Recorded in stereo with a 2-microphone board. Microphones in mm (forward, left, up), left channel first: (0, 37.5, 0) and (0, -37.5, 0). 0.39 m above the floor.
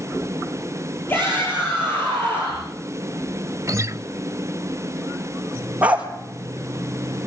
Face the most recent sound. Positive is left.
turn(degrees=-15)  # may be behind; listen again after turning